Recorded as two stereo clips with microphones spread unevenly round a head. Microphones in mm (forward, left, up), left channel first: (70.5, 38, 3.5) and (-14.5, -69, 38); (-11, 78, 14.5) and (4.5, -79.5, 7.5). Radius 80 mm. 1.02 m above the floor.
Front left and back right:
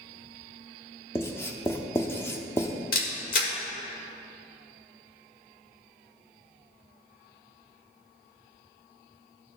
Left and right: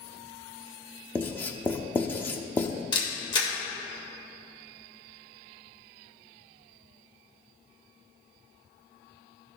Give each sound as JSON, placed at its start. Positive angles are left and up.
{"t": 1.1, "sound": "writing", "azimuth_deg": 140, "distance_m": 0.5}
{"t": 2.9, "sound": "a camera shutter", "azimuth_deg": 35, "distance_m": 1.7}